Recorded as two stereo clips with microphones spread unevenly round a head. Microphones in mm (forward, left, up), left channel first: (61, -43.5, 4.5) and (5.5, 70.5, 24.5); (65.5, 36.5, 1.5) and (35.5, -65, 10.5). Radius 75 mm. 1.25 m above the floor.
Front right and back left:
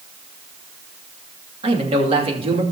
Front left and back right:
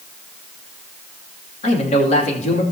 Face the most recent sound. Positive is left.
turn(degrees=70)